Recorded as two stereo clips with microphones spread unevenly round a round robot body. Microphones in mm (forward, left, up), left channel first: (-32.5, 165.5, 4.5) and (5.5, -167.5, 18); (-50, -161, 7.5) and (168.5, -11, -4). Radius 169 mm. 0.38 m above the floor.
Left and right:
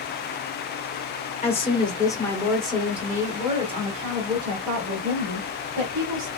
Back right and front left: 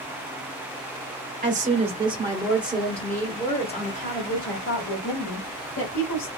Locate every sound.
1.4 s a woman speaking: 45° left, 1.5 m; by 6.3 s 135° right, 2.5 m